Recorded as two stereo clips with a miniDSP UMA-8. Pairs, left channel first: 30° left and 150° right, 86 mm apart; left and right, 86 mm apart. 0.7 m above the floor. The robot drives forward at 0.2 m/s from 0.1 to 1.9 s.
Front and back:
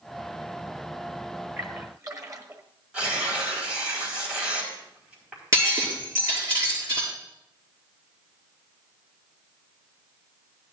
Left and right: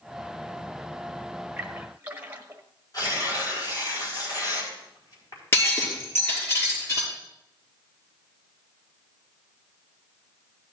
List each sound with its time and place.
1.6 s a splash: 145° right, 1.3 m; by 2.6 s 150° right, 1.3 m
2.9 s tearing paper: 135° left, 4.5 m
5.5 s breaking glass: 155° left, 4.5 m